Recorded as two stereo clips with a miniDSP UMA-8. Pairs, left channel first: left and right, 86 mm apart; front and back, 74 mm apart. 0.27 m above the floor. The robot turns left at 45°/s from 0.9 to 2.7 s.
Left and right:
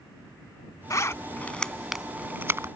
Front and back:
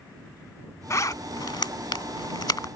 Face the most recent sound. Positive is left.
turn(degrees=-35)